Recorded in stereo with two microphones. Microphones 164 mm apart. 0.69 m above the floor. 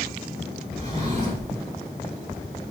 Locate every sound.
0.8 s a drawer: 45° right (ahead or behind), 5 m